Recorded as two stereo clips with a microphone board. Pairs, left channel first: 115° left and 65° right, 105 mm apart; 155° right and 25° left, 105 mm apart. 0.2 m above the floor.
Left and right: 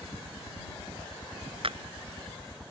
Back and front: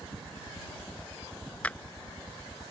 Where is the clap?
80° right.